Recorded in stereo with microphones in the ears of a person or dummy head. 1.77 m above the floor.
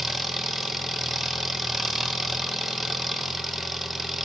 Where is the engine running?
Centre (ahead or behind), 1.6 m.